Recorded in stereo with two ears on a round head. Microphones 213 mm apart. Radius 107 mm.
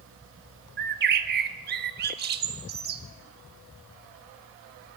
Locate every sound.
0.8 s a bird: 40° right (ahead or behind), 1.6 m